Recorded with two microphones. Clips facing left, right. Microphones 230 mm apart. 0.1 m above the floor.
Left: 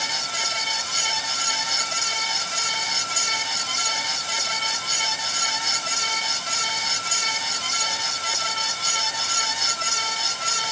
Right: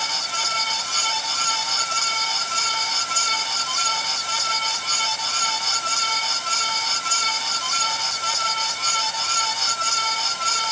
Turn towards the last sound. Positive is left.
No sound to turn to.